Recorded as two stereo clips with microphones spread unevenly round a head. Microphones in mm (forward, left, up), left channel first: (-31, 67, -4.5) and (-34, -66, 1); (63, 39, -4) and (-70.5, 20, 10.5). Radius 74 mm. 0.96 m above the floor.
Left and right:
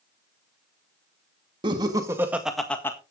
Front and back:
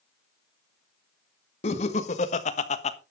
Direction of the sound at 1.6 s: 30° right.